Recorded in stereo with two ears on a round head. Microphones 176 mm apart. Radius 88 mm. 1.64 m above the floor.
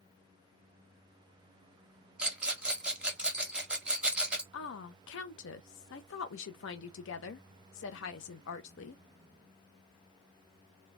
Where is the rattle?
5° right (ahead or behind), 0.8 m.